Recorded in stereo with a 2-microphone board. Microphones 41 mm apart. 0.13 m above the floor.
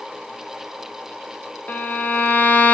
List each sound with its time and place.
1.7 s a violin: 45° left (ahead or behind), 0.9 m